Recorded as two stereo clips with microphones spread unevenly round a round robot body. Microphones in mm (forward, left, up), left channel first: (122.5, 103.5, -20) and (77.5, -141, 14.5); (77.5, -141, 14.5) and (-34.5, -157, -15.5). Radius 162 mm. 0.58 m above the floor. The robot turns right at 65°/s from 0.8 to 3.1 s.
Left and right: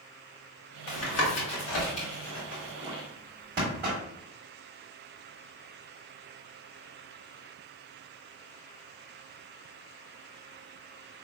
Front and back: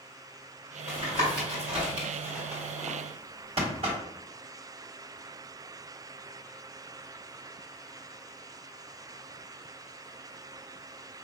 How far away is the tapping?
About 1.9 m.